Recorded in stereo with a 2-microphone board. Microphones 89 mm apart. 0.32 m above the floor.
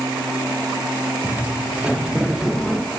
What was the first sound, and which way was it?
Footsteps, 20° right (ahead or behind).